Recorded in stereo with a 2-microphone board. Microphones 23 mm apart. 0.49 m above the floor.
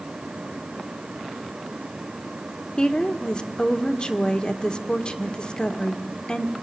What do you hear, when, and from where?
2.8 s a woman speaking: 40° left (ahead or behind), 1.6 m